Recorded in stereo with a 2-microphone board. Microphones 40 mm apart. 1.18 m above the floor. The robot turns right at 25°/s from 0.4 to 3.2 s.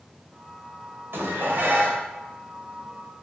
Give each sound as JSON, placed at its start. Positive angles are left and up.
{"t": 1.1, "sound": "dishes clattering", "side_deg": -70, "distance_m": 3.0}